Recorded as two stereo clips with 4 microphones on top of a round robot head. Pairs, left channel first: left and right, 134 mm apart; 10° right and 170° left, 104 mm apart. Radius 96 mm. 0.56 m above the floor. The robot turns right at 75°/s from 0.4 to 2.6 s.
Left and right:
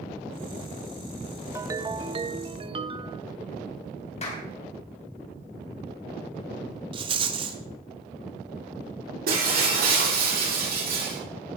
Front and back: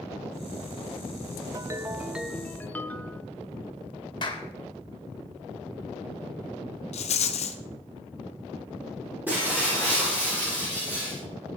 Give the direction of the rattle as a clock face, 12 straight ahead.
1 o'clock.